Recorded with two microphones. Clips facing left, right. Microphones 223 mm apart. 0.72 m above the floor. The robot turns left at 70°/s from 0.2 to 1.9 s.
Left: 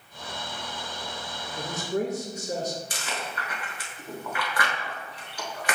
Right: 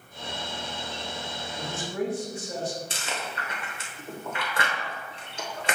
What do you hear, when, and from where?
1.6 s a man speaking: 35° left (ahead or behind), 0.8 m; by 2.8 s 40° left (ahead or behind), 0.8 m
2.9 s chewing: 25° right (ahead or behind), 0.8 m